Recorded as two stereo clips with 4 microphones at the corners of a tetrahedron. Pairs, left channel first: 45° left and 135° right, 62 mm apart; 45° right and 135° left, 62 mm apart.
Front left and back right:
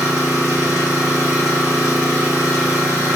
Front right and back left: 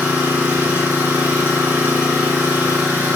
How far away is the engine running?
About 1.9 m.